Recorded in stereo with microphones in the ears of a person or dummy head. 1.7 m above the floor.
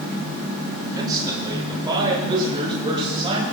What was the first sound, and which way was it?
A man speaking, 20° right (ahead or behind).